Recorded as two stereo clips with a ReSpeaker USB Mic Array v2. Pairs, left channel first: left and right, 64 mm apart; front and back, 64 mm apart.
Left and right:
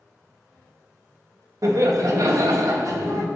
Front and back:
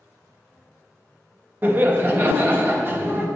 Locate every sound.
1.6 s laughter: 120° right, 1.1 m